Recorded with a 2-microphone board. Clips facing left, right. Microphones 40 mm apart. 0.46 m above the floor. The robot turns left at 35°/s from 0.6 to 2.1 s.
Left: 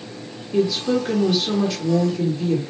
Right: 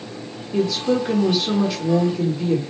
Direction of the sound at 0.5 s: 10° left (ahead or behind).